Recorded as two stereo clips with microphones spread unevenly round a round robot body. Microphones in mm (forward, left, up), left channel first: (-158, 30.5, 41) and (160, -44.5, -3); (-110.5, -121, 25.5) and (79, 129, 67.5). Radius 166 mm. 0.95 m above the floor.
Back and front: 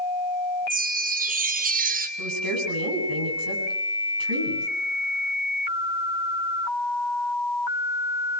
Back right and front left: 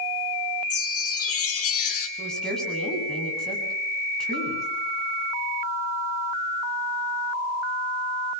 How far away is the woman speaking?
About 8 m.